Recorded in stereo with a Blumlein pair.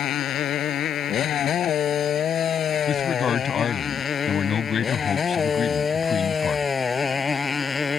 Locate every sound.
0.0 s a motorcycle: 30° left; by 8.0 s 15° left
2.9 s a man speaking: 25° left